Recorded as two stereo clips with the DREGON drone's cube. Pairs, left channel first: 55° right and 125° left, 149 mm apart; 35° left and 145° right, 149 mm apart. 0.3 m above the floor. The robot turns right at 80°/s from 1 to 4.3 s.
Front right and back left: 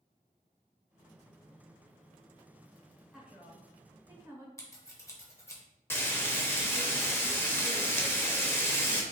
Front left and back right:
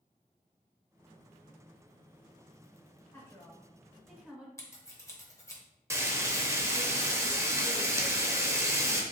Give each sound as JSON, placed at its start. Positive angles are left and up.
{"t": 3.1, "sound": "a woman speaking", "azimuth_deg": 50, "distance_m": 0.9}
{"t": 4.6, "sound": "scissors", "azimuth_deg": -15, "distance_m": 0.9}
{"t": 5.9, "sound": "frying", "azimuth_deg": -105, "distance_m": 0.6}